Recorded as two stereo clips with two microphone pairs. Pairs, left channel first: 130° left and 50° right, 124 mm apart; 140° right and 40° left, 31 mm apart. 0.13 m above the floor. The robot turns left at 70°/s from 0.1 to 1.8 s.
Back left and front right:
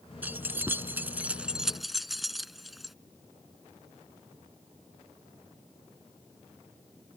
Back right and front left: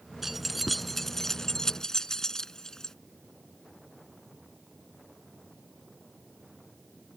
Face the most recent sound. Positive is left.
turn(degrees=-130)